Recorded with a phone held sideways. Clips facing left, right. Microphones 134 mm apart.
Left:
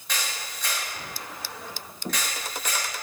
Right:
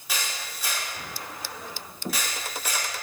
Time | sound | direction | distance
0.1 | a camera shutter | 5° right (ahead or behind) | 2.5 m